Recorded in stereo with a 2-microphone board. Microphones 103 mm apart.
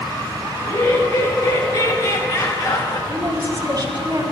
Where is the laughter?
40° left (ahead or behind), 2 m.